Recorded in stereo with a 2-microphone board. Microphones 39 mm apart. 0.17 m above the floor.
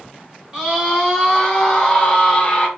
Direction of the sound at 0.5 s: 25° right (ahead or behind).